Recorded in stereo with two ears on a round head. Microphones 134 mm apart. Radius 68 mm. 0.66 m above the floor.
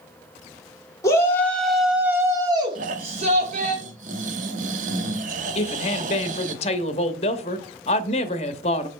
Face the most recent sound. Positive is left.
turn(degrees=40)  # may be behind; listen again after turning